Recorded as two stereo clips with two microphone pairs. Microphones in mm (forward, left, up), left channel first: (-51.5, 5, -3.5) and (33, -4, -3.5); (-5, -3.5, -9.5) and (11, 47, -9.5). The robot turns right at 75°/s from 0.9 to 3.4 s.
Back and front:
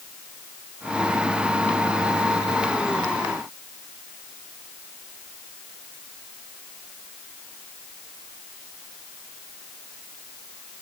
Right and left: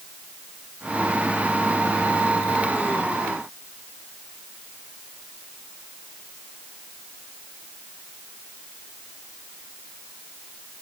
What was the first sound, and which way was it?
Only background noise.